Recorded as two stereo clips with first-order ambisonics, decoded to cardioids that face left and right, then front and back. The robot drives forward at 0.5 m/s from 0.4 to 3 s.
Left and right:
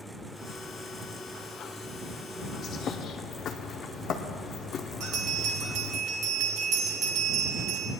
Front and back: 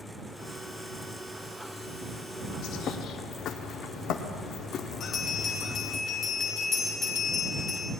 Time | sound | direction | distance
2.6 | a bird | 30° left | 0.8 m
5.0 | a bell | 65° right | 2 m